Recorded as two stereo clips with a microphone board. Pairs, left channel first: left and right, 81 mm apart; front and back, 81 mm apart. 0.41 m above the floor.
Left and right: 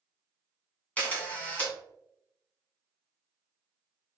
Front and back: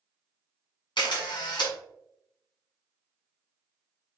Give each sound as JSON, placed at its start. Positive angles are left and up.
{"t": 1.0, "sound": "a camera shutter", "azimuth_deg": 20, "distance_m": 1.8}